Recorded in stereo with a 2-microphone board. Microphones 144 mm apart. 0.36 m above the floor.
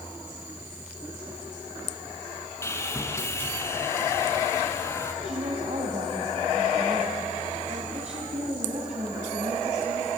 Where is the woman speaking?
50° right (ahead or behind), 2.5 m.